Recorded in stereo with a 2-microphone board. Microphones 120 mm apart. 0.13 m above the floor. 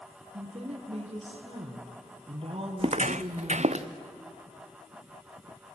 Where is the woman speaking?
50° right (ahead or behind), 3.5 m.